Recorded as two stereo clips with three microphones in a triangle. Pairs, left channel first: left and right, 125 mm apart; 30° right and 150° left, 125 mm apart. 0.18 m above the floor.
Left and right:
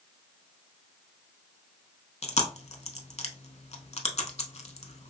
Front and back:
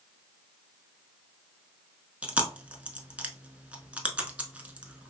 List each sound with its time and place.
2.2 s chewing: 75° left, 0.7 m